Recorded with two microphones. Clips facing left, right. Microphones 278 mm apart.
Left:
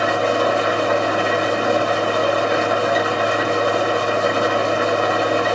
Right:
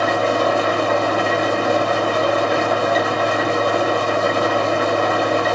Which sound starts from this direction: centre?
An engine running, at 0.0 s.